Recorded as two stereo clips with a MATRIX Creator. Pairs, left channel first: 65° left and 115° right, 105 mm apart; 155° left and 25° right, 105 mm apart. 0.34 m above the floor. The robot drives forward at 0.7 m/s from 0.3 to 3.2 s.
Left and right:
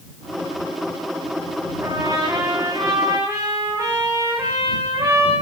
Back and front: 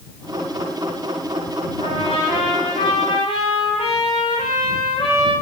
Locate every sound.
1.8 s a trumpet: 175° right, 9.5 m